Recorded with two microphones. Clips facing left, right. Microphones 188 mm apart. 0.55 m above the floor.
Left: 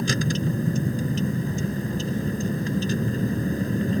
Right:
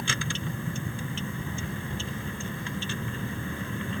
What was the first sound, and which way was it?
A vehicle, 40° left (ahead or behind).